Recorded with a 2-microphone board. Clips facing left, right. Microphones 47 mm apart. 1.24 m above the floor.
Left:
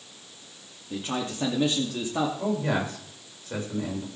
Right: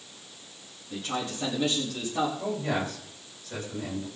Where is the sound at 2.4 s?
25° left (ahead or behind), 5 m.